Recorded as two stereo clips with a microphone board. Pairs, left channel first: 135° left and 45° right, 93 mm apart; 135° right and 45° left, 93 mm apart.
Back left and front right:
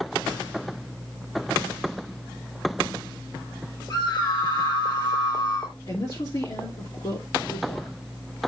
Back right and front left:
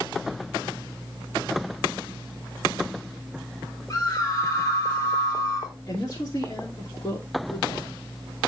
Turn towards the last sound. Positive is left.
turn(degrees=170)